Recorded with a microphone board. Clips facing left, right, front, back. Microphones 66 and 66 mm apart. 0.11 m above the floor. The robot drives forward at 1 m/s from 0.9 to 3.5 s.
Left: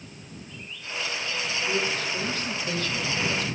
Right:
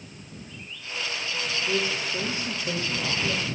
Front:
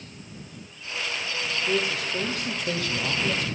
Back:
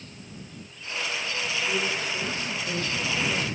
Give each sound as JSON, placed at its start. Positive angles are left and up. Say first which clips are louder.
{"t": 1.7, "sound": "a man speaking", "louder": "even, front 4 dB", "azimuth_deg": -20, "distance_m": 4.5}